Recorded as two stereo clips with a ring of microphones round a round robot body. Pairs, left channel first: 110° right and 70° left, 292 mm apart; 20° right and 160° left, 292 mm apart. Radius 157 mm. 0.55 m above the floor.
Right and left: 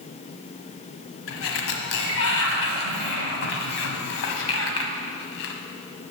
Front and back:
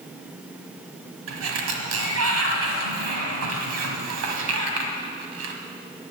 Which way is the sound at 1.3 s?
160° right.